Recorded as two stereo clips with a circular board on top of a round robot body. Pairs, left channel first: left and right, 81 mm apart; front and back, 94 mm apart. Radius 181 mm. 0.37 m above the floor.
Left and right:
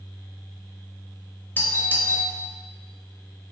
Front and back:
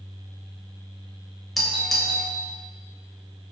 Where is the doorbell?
90° left, 1.3 m.